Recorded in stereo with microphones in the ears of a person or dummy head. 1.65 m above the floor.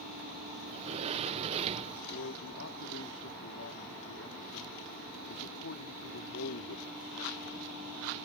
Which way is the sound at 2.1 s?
75° left (ahead or behind).